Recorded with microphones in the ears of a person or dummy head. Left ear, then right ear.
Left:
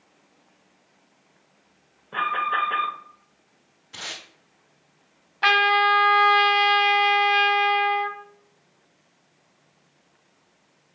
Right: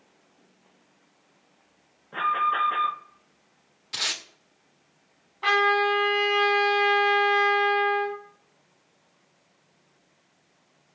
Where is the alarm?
30° left (ahead or behind), 1.5 m.